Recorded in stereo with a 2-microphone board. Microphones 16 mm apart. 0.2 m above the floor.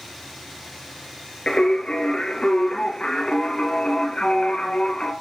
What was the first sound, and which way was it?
Singing, 70° left (ahead or behind).